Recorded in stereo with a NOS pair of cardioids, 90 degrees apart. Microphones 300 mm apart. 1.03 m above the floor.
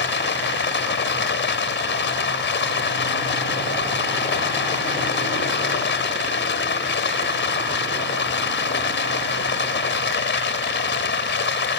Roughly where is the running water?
Ahead left.